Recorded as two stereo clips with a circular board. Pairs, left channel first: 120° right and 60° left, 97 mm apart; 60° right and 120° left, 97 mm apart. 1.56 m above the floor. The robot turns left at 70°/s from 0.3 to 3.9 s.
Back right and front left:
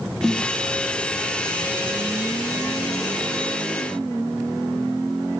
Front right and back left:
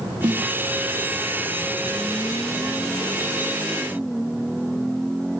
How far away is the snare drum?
About 0.9 m.